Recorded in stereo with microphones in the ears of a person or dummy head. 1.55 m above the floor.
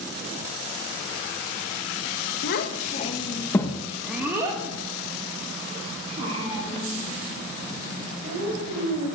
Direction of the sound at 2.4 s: 65° left (ahead or behind).